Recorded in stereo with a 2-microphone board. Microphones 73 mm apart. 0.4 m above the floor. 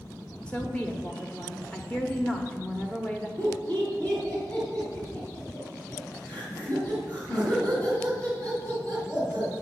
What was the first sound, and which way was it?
A woman speaking, 15° left (ahead or behind).